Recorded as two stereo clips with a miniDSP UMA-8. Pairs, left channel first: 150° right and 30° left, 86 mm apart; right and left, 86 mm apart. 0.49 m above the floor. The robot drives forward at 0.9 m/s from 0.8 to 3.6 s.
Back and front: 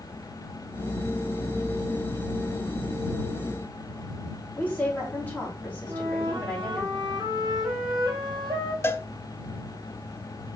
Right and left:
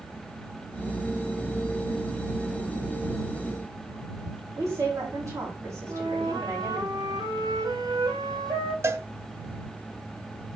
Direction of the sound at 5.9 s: 55° left.